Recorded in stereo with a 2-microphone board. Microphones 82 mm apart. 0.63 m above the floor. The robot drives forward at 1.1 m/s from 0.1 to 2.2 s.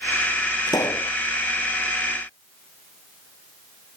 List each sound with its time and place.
0.7 s a pop: 50° left (ahead or behind)